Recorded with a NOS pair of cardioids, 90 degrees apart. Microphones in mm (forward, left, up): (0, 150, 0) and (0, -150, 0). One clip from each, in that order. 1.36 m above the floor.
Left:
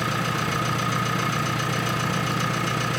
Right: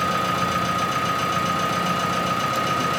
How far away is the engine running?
About 2.5 m.